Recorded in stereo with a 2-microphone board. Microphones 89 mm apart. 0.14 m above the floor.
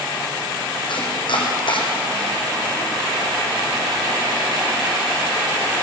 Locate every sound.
0.9 s chopping: 65° left (ahead or behind), 4 m